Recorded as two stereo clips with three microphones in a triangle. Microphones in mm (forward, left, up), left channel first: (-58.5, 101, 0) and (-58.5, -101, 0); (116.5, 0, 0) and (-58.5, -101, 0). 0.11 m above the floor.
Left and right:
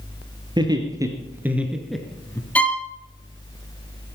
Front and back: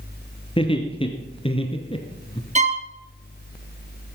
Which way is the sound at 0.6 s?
25° right.